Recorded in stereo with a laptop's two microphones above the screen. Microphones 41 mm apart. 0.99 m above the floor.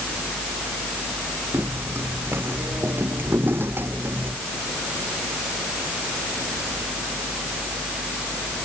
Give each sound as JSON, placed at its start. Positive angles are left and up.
{"t": 1.5, "sound": "footsteps", "side_deg": -60}